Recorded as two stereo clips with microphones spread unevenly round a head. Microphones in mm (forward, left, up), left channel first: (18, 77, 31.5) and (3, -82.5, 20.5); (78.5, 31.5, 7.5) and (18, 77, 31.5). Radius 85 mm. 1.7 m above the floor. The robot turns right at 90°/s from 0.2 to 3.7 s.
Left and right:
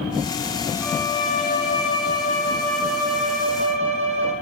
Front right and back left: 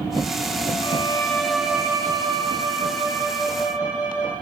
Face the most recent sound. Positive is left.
turn(degrees=-105)